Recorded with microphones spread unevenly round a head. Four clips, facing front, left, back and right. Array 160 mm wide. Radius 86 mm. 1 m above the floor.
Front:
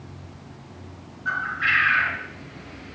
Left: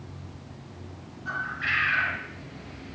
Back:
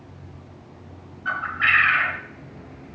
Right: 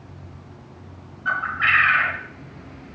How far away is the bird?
About 1.5 m.